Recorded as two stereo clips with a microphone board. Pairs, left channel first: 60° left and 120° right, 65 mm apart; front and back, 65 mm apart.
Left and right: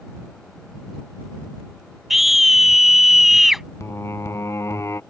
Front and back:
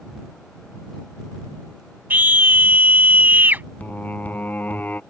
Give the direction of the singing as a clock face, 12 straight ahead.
10 o'clock.